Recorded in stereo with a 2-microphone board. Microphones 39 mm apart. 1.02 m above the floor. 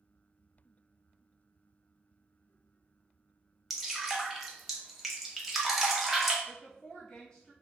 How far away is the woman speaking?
About 1.4 m.